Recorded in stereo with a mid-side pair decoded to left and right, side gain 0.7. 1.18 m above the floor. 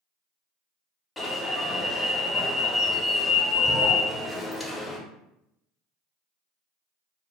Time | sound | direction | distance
1.2 | an alarm | 10° left | 0.7 m